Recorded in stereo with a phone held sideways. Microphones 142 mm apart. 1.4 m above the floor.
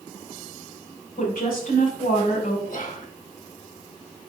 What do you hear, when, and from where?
1.2 s a woman speaking: 85° left, 4.5 m
2.7 s whispering: 65° left (ahead or behind), 1.7 m